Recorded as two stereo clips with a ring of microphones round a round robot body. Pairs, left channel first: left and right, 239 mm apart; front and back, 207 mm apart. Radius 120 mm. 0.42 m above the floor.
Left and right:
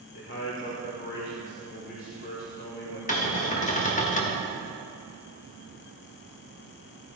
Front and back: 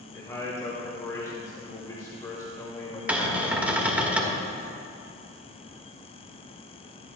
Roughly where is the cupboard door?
Left.